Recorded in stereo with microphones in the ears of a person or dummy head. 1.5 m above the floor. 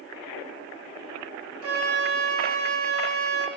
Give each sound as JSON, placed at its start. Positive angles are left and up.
{"t": 1.6, "sound": "a flute", "side_deg": -85, "distance_m": 3.0}